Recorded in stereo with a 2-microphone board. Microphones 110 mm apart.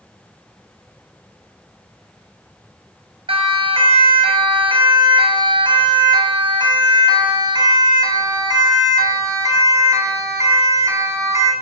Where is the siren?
60° right (ahead or behind), 4 m; by 11.5 s 30° right (ahead or behind), 6.5 m.